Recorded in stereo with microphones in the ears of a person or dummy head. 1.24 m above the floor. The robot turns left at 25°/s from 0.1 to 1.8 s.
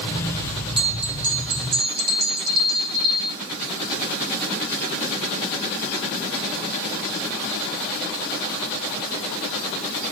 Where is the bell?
35° right (ahead or behind), 1.8 m; by 3.4 s 55° right (ahead or behind), 1.8 m.